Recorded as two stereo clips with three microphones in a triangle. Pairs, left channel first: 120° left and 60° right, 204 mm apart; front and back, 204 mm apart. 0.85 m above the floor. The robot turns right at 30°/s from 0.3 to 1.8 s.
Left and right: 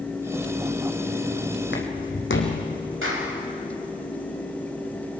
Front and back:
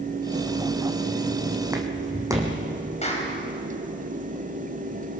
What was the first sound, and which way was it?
Footsteps, 105° left.